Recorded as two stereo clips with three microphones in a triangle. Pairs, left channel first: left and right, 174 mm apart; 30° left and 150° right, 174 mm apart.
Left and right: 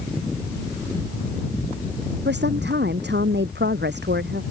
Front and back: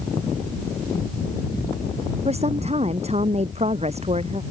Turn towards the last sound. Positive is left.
turn(degrees=-100)